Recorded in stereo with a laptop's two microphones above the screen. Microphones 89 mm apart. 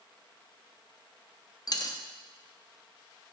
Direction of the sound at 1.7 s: 40° left (ahead or behind).